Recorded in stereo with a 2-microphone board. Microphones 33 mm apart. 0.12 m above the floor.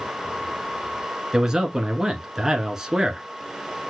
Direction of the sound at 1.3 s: 15° right (ahead or behind).